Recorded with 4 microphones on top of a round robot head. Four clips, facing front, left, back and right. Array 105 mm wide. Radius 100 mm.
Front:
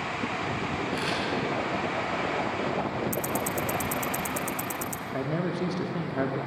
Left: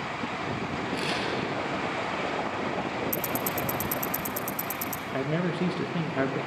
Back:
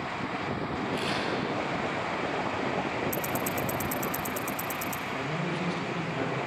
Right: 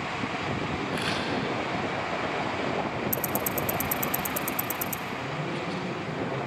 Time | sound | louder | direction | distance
0.9 | a camera shutter | left 1 dB, even | 55° right | 7.5 m
3.1 | ticking | even, front 1 dB | 30° right | 1.2 m
5.1 | a man speaking | left 8 dB, front 6 dB | 60° left | 2.5 m